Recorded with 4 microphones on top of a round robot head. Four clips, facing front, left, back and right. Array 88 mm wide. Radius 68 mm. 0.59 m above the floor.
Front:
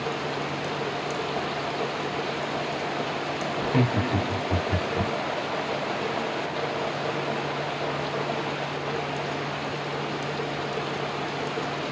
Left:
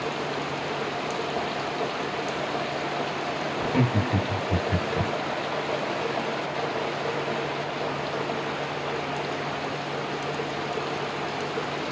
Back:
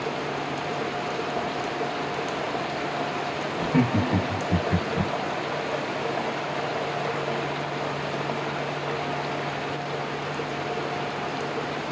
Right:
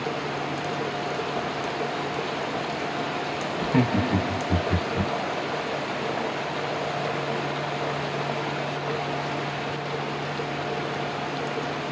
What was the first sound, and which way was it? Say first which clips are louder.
Laughter: right 3 dB, back 2 dB; 70° right.